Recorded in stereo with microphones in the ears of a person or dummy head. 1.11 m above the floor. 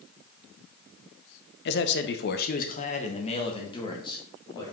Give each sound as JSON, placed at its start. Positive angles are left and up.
{"t": 1.6, "sound": "a man speaking", "side_deg": 55, "distance_m": 0.8}